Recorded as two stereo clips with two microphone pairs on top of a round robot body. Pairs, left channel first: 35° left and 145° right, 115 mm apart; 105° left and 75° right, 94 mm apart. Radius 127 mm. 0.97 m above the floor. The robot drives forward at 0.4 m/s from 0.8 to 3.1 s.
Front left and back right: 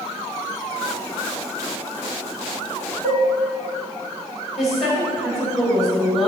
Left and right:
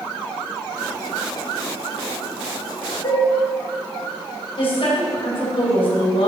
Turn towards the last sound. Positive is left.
turn(degrees=130)